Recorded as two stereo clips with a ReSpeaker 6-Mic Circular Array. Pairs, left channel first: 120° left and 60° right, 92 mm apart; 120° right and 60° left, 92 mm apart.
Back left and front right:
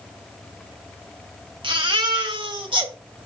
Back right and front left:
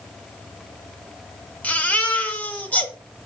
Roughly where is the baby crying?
Ahead right.